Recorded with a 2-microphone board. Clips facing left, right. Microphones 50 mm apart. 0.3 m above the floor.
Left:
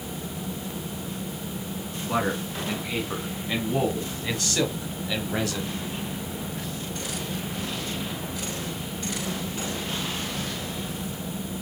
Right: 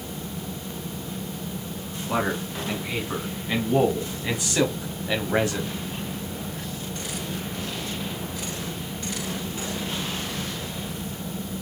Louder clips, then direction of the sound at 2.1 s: Right 1 dB; 5° right (ahead or behind).